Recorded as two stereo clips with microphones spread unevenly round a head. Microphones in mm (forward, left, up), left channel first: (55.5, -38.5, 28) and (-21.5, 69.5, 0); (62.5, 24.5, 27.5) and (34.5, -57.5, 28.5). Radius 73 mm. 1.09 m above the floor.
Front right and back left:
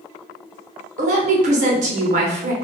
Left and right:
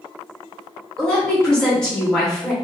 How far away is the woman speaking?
About 0.8 m.